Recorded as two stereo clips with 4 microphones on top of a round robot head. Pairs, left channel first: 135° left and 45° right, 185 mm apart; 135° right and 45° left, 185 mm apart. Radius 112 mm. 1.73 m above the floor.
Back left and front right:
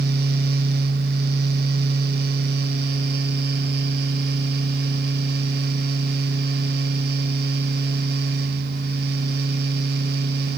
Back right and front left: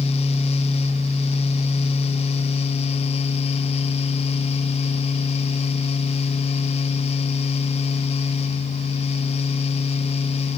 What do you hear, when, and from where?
Only background noise.